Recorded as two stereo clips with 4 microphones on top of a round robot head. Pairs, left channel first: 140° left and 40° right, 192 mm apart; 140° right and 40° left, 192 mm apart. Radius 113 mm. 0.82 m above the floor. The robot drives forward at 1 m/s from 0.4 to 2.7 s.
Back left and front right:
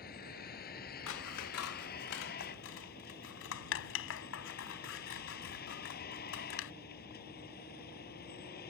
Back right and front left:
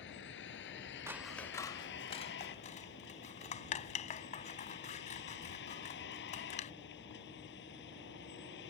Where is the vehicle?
175° right.